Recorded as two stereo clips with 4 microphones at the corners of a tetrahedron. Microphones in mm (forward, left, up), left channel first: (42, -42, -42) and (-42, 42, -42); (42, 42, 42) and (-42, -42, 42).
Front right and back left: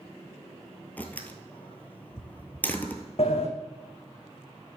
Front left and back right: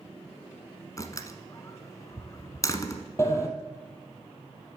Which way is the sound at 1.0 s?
15° left.